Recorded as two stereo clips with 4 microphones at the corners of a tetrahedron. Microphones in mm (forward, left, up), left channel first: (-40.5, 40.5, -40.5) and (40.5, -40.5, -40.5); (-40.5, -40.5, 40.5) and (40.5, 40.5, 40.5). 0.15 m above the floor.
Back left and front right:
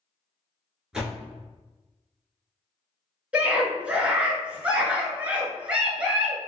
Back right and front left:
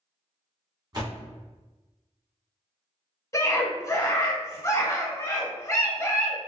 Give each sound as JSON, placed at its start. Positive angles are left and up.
{"t": 0.9, "sound": "a door slam", "azimuth_deg": 35, "distance_m": 1.2}
{"t": 3.3, "sound": "a scream", "azimuth_deg": -110, "distance_m": 1.2}